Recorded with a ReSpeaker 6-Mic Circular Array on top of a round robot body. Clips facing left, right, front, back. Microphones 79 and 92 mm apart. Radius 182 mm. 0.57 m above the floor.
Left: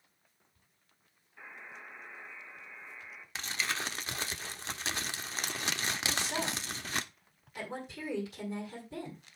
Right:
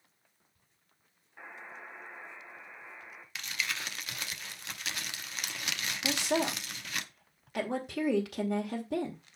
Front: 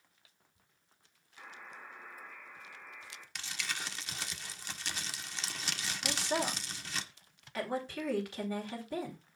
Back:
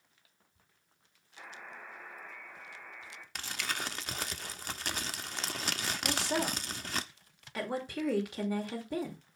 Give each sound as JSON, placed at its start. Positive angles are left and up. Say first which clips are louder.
{"t": 1.4, "sound": "a buzzer", "louder": "right 2 dB, back 2 dB", "azimuth_deg": -145, "distance_m": 4.0}
{"t": 3.4, "sound": "crumpling", "louder": "left 2 dB, back 4 dB", "azimuth_deg": 145, "distance_m": 1.2}
{"t": 6.0, "sound": "a woman speaking", "louder": "right 8 dB, back 1 dB", "azimuth_deg": -105, "distance_m": 2.5}